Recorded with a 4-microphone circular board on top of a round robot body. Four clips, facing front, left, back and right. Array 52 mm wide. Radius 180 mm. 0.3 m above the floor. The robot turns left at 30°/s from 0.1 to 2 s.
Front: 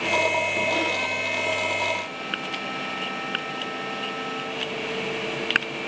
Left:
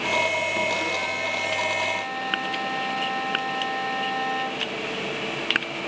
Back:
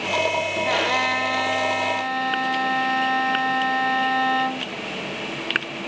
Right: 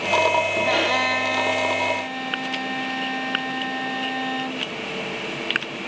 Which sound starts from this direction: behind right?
A violin, at 0.7 s.